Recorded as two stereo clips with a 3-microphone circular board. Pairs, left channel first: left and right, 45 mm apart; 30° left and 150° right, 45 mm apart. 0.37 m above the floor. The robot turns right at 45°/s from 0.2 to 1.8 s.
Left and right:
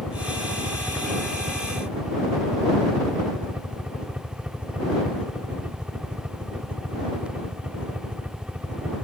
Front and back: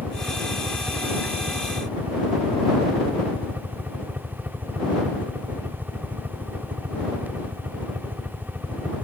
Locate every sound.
0.0 s a helicopter: 150° left; by 9.1 s 140° right